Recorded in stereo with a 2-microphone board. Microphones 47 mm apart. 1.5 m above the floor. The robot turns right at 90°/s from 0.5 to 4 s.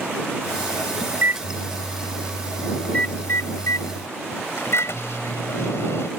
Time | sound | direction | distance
1.1 | a microwave | 35° right (ahead or behind) | ?